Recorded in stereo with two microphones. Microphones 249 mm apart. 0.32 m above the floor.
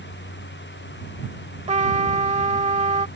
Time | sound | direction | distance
1.7 | a trumpet | 25° right (ahead or behind) | ?